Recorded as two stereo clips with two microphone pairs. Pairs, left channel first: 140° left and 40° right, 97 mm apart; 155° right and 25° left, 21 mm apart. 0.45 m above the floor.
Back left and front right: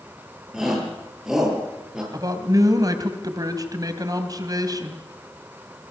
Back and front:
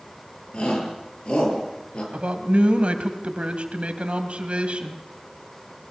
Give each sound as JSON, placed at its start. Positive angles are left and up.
{"t": 0.5, "sound": "a shout", "azimuth_deg": -125, "distance_m": 9.5}
{"t": 2.1, "sound": "a man speaking", "azimuth_deg": 5, "distance_m": 3.0}